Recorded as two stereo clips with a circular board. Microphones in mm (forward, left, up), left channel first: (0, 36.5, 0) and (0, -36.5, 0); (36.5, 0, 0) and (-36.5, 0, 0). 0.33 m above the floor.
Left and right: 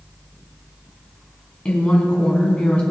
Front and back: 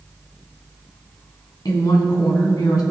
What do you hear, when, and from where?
1.6 s a woman speaking: 15° left, 2.5 m